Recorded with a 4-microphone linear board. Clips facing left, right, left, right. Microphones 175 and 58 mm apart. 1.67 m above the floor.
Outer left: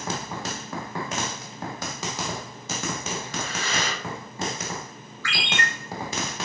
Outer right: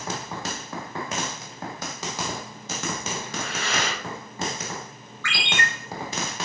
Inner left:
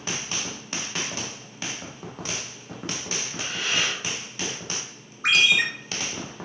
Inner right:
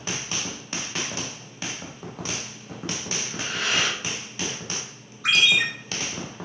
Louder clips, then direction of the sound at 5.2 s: Even, even; 35° left (ahead or behind).